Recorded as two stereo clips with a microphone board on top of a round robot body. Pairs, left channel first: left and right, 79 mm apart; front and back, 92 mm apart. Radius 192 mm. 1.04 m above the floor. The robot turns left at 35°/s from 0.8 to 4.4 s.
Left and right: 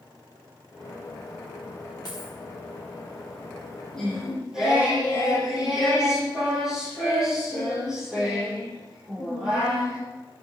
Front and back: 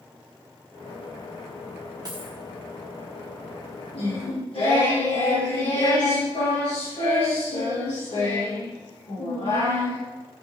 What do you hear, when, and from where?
2.0 s a dropped coin: 130° left, 0.5 m; by 2.4 s 120° left, 0.5 m
3.9 s singing: 10° left, 7 m; by 10.0 s 10° right, 7 m